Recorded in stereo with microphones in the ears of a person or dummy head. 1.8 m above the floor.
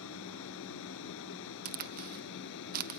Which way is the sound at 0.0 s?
75° left (ahead or behind).